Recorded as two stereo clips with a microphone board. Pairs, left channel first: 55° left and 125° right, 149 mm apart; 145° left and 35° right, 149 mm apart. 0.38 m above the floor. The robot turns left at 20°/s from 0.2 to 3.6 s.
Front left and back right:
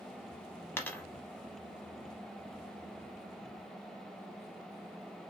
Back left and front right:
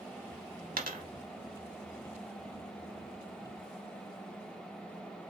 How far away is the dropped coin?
About 0.8 m.